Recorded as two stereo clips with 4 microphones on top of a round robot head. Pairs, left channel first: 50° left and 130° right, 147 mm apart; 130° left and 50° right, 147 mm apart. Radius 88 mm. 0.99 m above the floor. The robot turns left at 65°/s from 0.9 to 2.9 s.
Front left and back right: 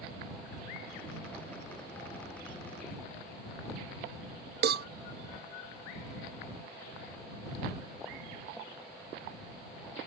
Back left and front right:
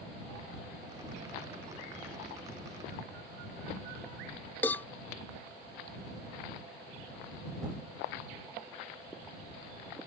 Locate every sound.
4.6 s a cowbell: 155° right